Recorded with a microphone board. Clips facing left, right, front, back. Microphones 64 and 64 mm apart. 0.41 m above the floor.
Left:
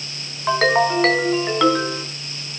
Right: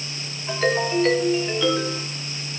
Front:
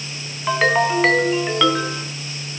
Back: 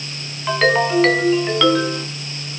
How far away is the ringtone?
About 3 m.